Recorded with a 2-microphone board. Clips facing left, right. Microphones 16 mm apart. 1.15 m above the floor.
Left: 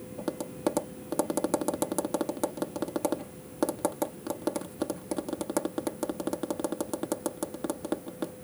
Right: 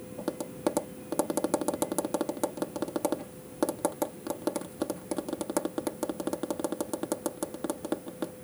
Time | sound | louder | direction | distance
0.2 | tapping | even | 5° right (ahead or behind) | ?